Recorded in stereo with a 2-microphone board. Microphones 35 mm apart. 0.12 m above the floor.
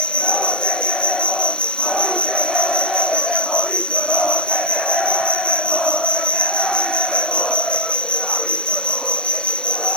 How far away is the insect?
About 1.4 m.